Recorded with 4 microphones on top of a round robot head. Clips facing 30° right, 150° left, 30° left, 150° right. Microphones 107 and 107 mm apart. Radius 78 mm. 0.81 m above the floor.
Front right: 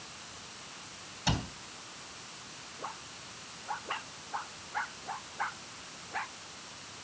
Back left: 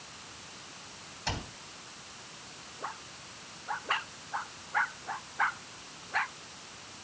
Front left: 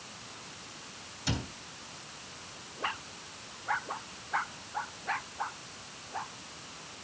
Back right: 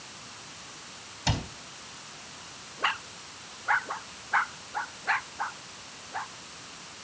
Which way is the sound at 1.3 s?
115° right.